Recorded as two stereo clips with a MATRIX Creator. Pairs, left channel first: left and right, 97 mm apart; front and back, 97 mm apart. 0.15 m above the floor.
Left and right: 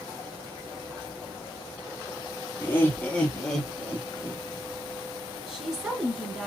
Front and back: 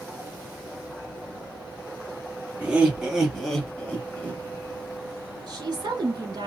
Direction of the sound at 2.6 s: 120° left.